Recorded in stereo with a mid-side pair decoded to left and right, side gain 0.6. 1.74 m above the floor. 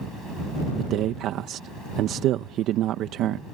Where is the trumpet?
I don't hear a trumpet.